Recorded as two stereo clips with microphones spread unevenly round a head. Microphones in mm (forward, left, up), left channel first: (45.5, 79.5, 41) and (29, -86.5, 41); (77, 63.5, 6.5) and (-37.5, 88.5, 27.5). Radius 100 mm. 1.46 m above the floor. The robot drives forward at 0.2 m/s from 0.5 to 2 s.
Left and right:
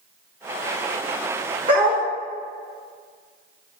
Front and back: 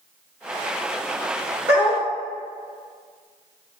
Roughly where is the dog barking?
Behind right.